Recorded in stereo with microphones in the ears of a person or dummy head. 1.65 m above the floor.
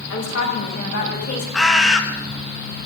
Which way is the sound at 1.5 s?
Centre (ahead or behind).